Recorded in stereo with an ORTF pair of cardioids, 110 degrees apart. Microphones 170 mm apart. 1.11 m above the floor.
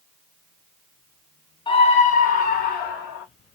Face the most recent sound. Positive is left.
turn(degrees=70)